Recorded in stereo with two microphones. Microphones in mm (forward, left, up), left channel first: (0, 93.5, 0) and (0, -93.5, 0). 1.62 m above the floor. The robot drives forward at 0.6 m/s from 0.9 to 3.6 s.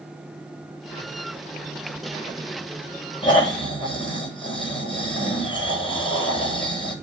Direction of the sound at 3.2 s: 25° left (ahead or behind).